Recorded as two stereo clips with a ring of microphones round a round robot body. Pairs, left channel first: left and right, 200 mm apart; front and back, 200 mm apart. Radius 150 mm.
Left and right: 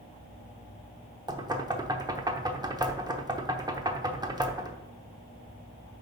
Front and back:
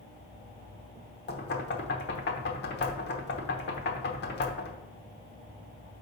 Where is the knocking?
20° right, 1.0 m.